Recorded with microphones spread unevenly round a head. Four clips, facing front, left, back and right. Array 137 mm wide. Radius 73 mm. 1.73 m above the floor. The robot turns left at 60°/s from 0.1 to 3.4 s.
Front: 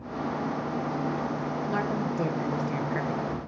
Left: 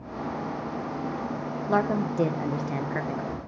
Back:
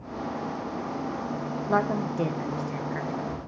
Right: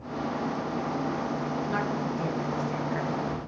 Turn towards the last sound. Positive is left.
turn(degrees=40)